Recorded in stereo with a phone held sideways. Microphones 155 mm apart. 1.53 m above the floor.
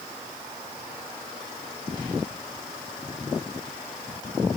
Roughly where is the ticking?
No ticking in this recording.